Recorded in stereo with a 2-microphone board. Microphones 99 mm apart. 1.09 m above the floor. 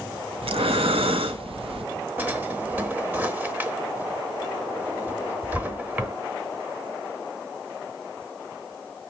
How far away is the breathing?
About 0.5 m.